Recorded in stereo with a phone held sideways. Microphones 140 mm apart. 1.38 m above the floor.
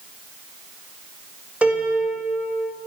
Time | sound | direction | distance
1.6 | a piano | 10° right (ahead or behind) | 1.6 m